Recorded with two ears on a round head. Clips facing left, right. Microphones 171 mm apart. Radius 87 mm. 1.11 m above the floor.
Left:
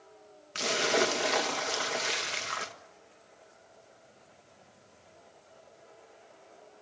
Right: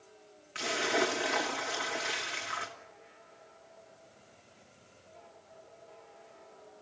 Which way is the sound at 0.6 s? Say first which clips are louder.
Left 3 dB; 50° left (ahead or behind).